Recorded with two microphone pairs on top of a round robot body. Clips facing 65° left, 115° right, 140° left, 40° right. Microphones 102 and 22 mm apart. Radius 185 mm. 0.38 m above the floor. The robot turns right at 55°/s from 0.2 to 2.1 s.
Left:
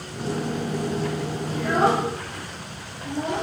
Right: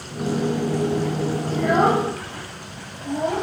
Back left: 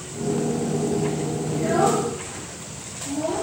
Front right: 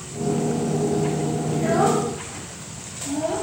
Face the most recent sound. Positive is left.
turn(degrees=-105)